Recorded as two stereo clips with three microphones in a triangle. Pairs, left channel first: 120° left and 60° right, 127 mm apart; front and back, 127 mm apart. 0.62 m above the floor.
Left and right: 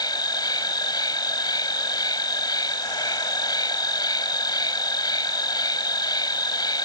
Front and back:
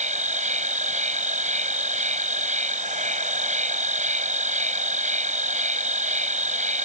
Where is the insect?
175° left.